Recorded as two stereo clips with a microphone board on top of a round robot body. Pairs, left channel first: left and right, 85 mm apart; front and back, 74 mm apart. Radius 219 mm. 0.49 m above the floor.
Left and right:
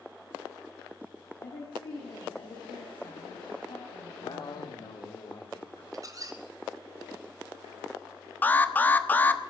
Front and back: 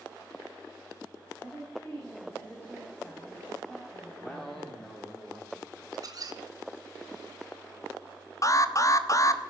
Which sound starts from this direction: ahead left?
An alarm, at 8.4 s.